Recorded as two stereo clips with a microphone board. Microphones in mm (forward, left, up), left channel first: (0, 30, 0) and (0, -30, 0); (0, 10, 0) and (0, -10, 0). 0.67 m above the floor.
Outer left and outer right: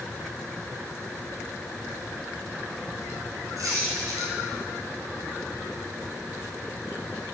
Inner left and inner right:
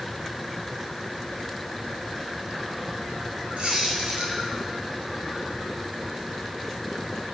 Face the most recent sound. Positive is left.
turn(degrees=-75)  # may be behind; listen again after turning